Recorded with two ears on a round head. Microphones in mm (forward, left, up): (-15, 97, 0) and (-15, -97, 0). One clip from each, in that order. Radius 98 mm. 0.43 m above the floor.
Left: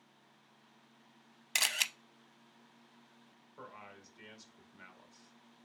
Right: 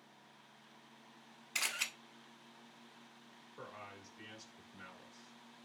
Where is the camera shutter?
65° left (ahead or behind), 0.6 m.